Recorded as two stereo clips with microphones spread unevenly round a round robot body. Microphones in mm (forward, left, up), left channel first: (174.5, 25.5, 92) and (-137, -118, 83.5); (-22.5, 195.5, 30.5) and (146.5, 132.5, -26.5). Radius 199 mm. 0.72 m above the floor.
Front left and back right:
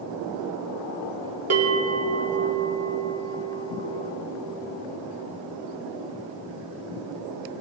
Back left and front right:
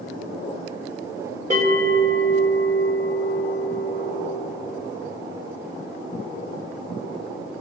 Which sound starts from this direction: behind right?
A bell, at 1.5 s.